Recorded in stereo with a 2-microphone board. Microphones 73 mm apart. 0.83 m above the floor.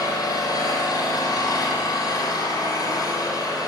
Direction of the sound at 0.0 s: 55° left (ahead or behind).